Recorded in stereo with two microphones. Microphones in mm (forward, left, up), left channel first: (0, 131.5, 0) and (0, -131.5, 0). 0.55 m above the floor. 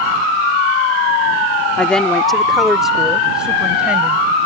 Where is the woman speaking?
5° left (ahead or behind); by 4.3 s 5° right (ahead or behind).